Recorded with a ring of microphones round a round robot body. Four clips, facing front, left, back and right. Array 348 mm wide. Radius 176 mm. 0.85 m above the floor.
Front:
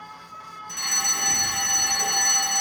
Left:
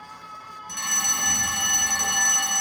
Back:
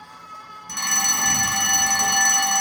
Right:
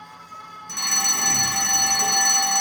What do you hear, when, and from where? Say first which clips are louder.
0.7 s a fire alarm: right 2 dB, back 5 dB; 150° right, 2 m